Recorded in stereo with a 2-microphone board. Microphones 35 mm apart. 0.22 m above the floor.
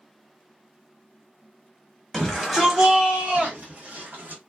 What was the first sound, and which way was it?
A shout, 10° left (ahead or behind).